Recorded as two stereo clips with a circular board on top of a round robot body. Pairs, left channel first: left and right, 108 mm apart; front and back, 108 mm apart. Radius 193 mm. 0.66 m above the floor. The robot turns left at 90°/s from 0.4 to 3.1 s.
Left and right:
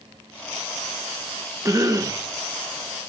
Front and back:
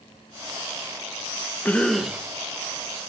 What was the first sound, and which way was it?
A cough, 60° right.